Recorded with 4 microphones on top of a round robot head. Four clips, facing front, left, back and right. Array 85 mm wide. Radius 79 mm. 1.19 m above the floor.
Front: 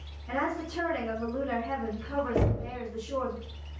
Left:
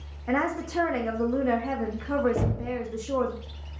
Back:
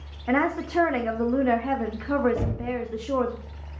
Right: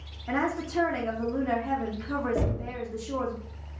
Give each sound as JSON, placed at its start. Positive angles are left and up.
{"t": 0.3, "sound": "a woman speaking", "azimuth_deg": 160, "distance_m": 0.5}
{"t": 2.4, "sound": "knocking", "azimuth_deg": 10, "distance_m": 1.2}